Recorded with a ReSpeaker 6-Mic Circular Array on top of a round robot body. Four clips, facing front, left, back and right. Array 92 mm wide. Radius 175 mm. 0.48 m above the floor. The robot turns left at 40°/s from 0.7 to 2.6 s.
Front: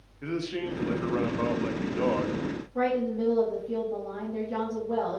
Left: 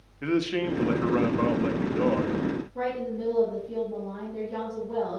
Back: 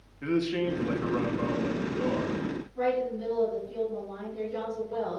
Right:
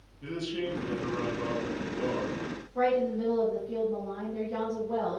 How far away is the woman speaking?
About 3.5 m.